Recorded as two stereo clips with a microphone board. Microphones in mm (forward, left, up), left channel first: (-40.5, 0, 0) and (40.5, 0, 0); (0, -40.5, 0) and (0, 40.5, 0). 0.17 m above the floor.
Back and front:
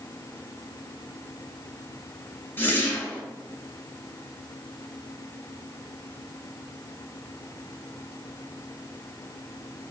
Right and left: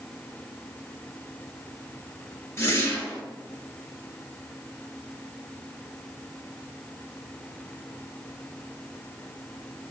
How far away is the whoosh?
About 1.0 m.